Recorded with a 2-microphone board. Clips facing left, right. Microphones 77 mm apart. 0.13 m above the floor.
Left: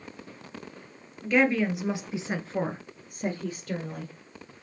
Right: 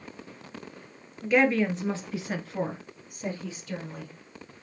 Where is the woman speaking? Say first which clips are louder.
Right 1 dB; 5° right (ahead or behind), 1.8 m; by 4.1 s 60° left (ahead or behind), 2.5 m.